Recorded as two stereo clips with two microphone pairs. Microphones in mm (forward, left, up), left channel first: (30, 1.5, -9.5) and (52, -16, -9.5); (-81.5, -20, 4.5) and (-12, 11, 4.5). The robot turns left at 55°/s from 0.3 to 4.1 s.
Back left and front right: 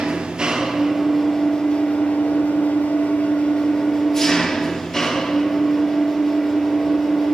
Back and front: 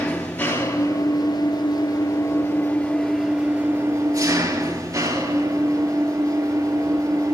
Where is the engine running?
90° right, 3 m; by 7.3 s 60° left, 3 m.